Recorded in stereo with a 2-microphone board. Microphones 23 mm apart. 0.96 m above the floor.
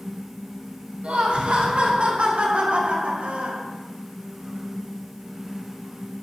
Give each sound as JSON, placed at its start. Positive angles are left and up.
{"t": 1.0, "sound": "laughter", "side_deg": -50, "distance_m": 6.0}